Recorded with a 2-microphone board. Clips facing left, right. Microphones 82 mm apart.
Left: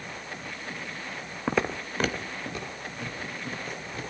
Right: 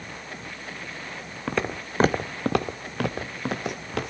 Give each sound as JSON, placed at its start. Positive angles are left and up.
{"t": 1.5, "sound": "footsteps", "side_deg": 15, "distance_m": 0.6}